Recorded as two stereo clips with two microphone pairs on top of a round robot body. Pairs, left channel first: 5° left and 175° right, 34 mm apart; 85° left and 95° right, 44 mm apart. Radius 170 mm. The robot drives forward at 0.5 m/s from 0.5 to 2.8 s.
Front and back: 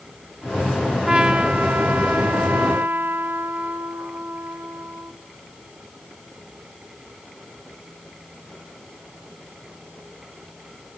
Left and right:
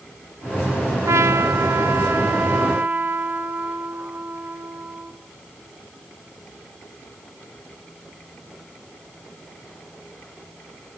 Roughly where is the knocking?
I don't hear knocking.